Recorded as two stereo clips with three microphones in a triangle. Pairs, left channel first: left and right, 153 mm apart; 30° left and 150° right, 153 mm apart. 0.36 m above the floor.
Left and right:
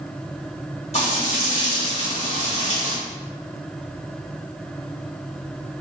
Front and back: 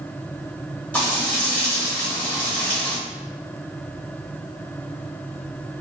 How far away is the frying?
About 1.1 m.